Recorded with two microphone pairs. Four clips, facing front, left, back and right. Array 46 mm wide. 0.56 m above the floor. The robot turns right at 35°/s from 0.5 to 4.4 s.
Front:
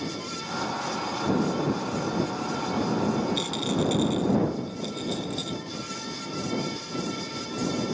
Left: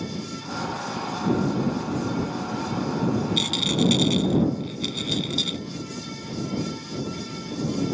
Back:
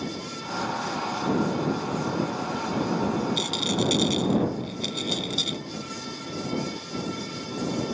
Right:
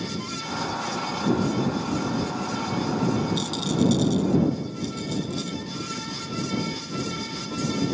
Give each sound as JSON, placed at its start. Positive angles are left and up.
{"t": 3.4, "sound": "a rattle", "azimuth_deg": 90}